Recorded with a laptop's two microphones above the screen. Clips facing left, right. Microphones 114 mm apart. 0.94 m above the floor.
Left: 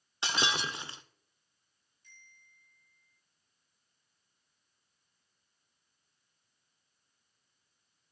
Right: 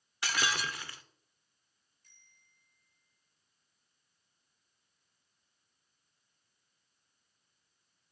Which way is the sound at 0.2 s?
25° left (ahead or behind).